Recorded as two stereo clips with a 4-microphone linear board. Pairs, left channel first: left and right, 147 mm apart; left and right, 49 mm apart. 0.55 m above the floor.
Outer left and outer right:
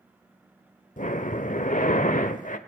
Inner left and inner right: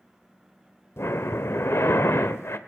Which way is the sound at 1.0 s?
60° left (ahead or behind).